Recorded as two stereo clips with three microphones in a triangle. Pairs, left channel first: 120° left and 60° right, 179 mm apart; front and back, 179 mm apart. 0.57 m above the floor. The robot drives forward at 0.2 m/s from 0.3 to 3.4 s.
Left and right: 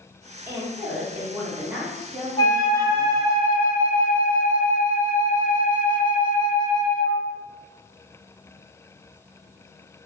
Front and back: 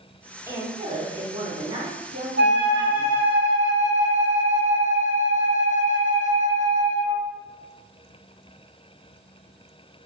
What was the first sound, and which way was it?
A woman speaking, 125° right.